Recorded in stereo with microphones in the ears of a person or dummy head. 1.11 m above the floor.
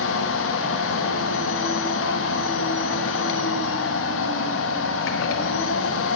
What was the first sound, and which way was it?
A machine running, 80° left.